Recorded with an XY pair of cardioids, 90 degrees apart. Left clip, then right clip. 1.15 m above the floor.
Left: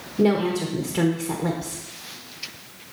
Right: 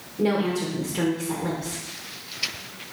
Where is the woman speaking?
65° left, 1.4 m.